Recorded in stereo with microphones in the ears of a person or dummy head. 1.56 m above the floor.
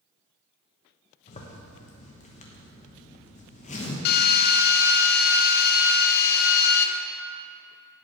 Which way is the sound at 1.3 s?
30° left (ahead or behind).